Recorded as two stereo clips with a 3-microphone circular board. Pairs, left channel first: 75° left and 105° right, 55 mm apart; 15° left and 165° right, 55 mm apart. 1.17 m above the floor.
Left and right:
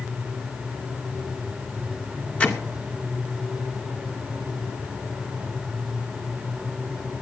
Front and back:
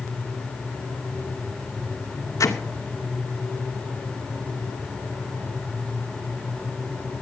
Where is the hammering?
15° left, 3 m.